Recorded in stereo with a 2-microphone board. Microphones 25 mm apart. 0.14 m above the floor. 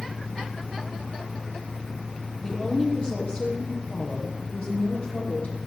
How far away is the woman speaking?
About 4 m.